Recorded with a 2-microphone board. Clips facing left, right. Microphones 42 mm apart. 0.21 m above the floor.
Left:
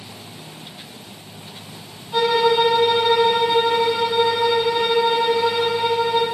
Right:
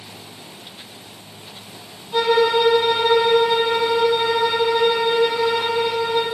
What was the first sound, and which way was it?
A violin, 5° right (ahead or behind).